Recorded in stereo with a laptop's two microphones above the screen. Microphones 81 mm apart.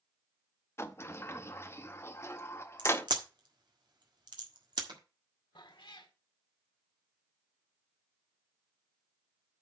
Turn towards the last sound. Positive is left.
turn(degrees=80)